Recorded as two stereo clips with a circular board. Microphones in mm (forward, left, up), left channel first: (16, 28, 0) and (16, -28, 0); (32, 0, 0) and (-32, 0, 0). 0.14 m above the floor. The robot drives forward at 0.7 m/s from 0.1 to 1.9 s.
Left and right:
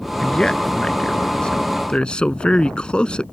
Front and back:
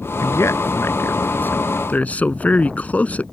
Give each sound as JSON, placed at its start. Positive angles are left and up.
{"t": 0.2, "sound": "a man speaking", "azimuth_deg": 15}